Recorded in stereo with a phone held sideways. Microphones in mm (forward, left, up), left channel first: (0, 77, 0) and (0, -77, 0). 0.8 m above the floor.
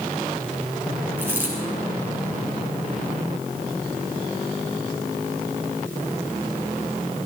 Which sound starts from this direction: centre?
A dropped coin, at 1.2 s.